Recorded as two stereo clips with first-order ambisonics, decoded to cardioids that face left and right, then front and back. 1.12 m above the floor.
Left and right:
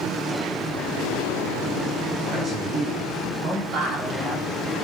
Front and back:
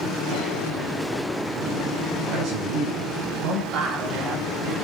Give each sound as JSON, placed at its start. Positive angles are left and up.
{"t": 2.3, "sound": "a man speaking", "azimuth_deg": -145, "distance_m": 7.0}
{"t": 3.7, "sound": "a woman speaking", "azimuth_deg": -145, "distance_m": 3.0}